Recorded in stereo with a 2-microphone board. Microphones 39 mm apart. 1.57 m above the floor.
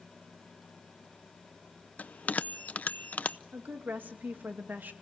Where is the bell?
45° left (ahead or behind), 0.6 m.